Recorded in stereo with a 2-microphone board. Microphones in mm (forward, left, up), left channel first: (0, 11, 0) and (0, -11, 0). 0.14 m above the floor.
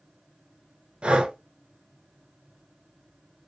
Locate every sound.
1.0 s breathing: 55° right (ahead or behind), 0.7 m